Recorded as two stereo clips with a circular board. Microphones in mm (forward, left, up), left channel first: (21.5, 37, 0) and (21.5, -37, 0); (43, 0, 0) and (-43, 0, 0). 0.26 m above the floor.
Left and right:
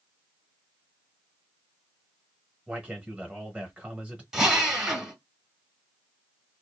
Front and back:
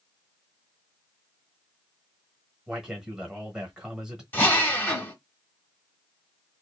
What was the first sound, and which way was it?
A man speaking, 115° right.